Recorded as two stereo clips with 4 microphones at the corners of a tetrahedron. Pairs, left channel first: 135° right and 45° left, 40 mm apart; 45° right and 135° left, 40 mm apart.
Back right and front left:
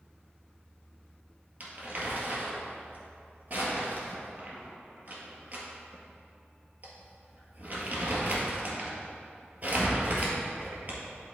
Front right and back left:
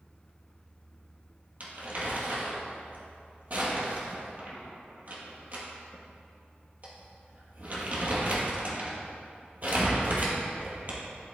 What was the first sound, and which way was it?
Crumpling, 95° left.